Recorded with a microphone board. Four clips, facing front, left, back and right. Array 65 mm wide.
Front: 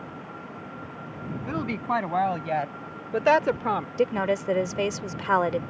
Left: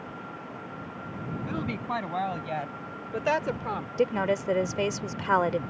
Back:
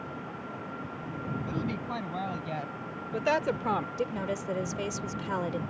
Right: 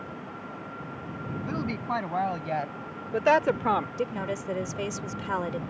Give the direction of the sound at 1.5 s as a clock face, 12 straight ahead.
12 o'clock.